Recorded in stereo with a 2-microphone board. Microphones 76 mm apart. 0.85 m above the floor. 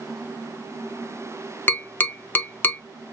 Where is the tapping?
25° left (ahead or behind), 0.5 m.